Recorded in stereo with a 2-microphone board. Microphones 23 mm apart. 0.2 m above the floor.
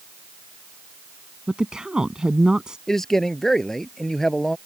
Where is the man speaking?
20° left (ahead or behind).